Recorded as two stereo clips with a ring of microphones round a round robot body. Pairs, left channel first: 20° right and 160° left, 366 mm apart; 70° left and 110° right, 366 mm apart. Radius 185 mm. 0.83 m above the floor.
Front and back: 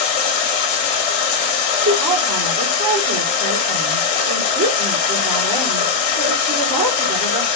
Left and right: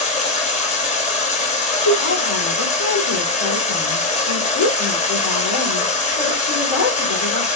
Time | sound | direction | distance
0.0 | running water | 5° right | 1.2 m
1.8 | a woman speaking | 100° left | 3.5 m